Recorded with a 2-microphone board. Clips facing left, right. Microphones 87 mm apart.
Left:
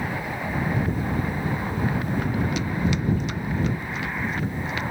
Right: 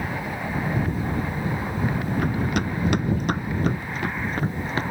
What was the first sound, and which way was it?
Running footsteps, 55° right (ahead or behind).